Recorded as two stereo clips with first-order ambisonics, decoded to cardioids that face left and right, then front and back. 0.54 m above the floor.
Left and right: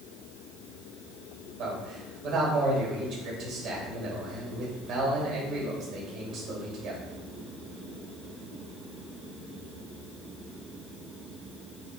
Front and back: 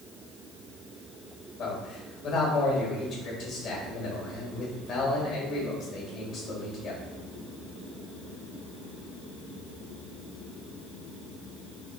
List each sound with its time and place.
1.6 s a man speaking: 50° right, 1.9 m